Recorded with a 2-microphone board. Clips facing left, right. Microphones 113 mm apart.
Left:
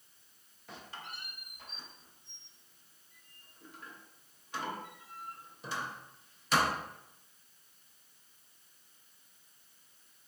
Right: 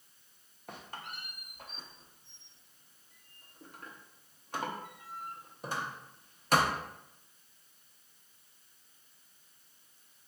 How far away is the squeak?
About 0.6 m.